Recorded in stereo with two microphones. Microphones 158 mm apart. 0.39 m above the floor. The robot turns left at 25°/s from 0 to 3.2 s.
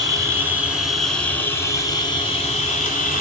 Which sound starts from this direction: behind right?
An insect, at 0.0 s.